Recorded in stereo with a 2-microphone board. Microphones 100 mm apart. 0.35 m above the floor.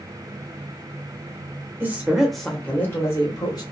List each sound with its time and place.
1.8 s a woman speaking: 20° right (ahead or behind), 0.8 m; by 3.6 s 40° left (ahead or behind), 1.2 m